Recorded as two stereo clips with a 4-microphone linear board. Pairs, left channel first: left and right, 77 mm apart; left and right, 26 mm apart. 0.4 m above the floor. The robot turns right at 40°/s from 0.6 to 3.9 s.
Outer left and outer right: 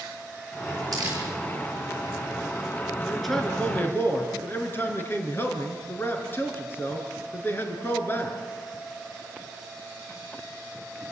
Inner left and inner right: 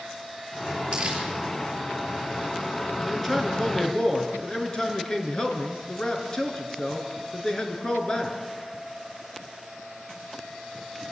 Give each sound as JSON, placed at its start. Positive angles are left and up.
{"t": 0.9, "sound": "crumpling", "side_deg": -50, "distance_m": 9.5}
{"t": 3.0, "sound": "a man speaking", "azimuth_deg": -5, "distance_m": 4.5}